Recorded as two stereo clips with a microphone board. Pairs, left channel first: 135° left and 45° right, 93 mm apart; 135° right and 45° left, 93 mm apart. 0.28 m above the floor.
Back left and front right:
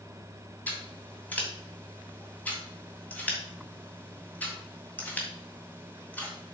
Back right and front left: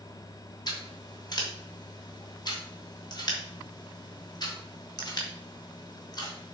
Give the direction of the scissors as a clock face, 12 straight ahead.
5 o'clock.